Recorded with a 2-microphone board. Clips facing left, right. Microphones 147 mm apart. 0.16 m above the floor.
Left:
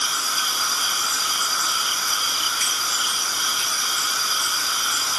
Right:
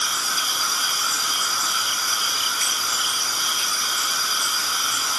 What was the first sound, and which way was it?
Only background noise.